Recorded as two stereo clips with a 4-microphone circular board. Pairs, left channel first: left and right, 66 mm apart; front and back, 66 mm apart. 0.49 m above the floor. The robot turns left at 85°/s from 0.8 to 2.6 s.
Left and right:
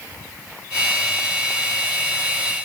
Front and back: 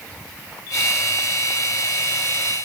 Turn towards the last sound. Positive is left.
No sound to turn to.